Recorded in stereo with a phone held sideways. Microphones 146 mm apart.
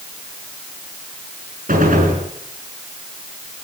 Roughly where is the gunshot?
Right.